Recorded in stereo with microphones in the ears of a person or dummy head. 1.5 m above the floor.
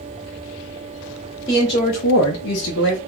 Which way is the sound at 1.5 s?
20° left (ahead or behind).